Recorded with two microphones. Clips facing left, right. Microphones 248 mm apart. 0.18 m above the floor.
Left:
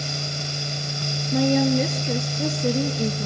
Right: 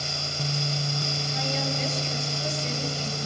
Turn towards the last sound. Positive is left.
turn(degrees=60)  # may be behind; listen again after turning